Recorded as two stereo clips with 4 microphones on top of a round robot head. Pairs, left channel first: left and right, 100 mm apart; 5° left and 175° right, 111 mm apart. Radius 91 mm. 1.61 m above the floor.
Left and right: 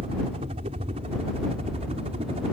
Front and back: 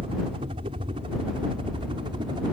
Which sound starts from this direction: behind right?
A helicopter, at 0.0 s.